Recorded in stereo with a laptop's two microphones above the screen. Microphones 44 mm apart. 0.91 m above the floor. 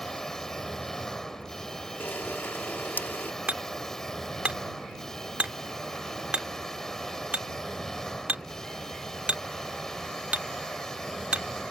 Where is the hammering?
35° right (ahead or behind).